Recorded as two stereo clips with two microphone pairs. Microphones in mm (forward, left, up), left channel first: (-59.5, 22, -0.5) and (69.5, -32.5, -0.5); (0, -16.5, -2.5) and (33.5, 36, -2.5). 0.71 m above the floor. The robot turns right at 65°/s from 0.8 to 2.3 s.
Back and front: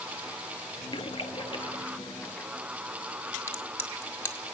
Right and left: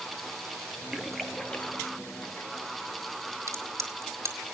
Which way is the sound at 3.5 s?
85° left.